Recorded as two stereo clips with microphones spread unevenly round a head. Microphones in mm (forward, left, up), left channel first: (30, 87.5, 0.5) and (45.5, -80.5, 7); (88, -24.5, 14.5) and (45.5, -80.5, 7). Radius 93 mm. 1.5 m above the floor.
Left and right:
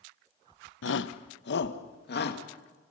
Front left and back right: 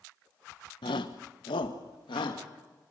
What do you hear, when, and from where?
0.8 s a shout: 90° left, 1.0 m; by 2.4 s 70° left, 2.5 m